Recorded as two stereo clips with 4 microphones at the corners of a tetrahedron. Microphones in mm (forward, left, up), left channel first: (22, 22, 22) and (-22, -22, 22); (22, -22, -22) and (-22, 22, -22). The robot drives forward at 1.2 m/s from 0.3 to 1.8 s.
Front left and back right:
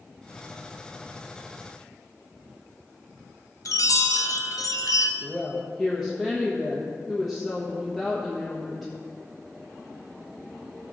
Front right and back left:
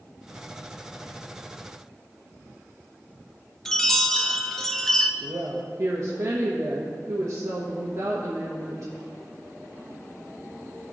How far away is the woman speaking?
About 1.1 m.